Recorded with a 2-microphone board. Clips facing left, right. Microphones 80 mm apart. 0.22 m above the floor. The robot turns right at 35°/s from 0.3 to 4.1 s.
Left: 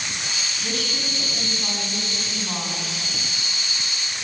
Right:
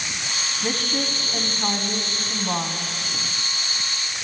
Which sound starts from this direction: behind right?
A woman speaking, at 0.6 s.